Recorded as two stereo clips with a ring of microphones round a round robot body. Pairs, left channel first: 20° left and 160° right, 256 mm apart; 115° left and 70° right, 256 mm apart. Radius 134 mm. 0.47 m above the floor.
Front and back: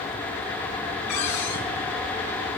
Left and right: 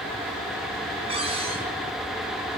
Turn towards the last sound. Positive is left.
turn(degrees=0)